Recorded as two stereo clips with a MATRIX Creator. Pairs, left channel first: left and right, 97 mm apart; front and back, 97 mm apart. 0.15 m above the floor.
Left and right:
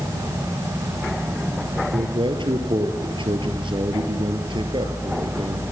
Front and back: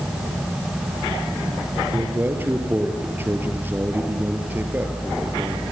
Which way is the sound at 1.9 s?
110° right.